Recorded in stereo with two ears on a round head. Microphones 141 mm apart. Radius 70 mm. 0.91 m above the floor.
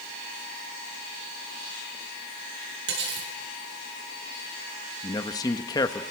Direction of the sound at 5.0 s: 25° left (ahead or behind).